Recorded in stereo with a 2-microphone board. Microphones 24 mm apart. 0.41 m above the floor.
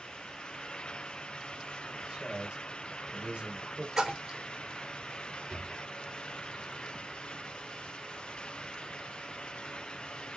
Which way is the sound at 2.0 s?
30° right (ahead or behind).